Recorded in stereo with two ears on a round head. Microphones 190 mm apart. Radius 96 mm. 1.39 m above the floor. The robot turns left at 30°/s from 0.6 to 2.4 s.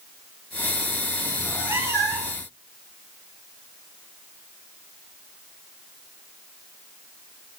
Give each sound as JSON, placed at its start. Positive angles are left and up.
{"t": 1.4, "sound": "a cat meowing", "azimuth_deg": 0, "distance_m": 2.5}